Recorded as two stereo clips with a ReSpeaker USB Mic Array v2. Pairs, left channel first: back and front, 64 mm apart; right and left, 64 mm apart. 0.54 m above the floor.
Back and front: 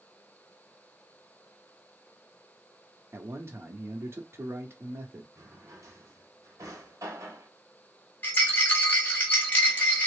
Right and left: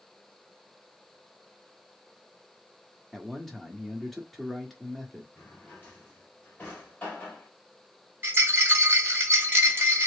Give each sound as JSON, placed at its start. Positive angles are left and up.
{"t": 3.1, "sound": "a man speaking", "azimuth_deg": -5, "distance_m": 0.9}
{"t": 5.3, "sound": "a drawer", "azimuth_deg": -30, "distance_m": 1.4}
{"t": 8.2, "sound": "a rattle", "azimuth_deg": 130, "distance_m": 1.5}